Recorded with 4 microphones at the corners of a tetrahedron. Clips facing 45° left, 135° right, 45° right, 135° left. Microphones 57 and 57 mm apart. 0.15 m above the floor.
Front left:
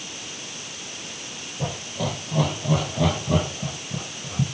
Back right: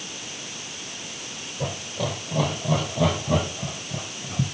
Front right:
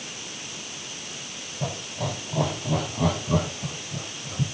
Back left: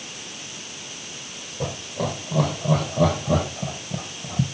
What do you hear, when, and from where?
1.6 s laughter: 125° left, 6.5 m; by 4.4 s 140° left, 4.5 m